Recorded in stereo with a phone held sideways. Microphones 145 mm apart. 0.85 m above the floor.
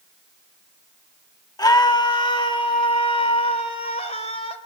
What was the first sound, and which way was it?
A scream, 25° left (ahead or behind).